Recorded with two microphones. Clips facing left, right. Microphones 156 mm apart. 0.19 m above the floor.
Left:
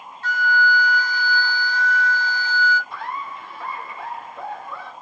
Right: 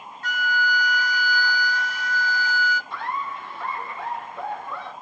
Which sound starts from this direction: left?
A flute, at 0.2 s.